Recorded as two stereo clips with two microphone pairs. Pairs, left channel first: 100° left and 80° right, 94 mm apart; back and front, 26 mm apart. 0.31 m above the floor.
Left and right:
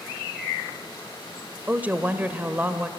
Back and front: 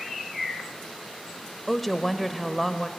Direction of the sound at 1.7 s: 95° right.